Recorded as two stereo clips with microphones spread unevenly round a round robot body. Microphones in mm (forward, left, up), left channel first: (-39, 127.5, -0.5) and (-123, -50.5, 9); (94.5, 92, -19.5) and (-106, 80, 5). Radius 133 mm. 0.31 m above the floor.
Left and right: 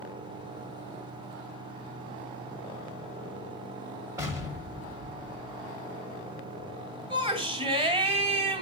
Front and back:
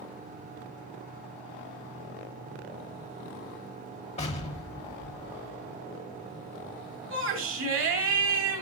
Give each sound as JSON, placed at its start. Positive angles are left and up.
{"t": 4.2, "sound": "an explosion", "azimuth_deg": -40, "distance_m": 1.4}
{"t": 7.1, "sound": "a shout", "azimuth_deg": -175, "distance_m": 2.5}